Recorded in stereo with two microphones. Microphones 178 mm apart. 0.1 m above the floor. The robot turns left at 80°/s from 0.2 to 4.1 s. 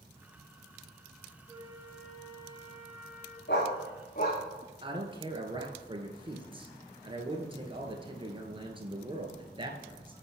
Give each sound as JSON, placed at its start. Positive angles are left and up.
{"t": 1.5, "sound": "a flute", "azimuth_deg": -135, "distance_m": 1.9}
{"t": 3.5, "sound": "a dog barking", "side_deg": 75, "distance_m": 3.5}
{"t": 4.8, "sound": "a man speaking", "side_deg": -30, "distance_m": 2.0}